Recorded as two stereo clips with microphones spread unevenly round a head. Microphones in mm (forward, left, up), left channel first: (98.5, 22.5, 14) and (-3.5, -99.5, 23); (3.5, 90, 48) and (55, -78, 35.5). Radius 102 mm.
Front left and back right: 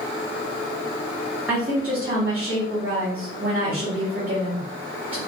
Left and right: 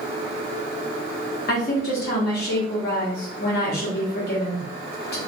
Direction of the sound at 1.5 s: 145° left.